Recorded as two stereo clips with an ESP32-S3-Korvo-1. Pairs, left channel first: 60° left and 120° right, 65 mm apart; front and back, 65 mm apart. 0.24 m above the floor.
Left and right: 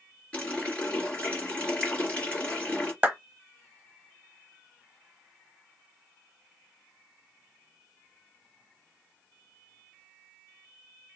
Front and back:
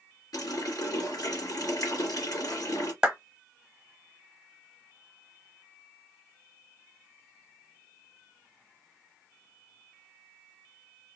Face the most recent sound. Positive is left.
turn(degrees=-125)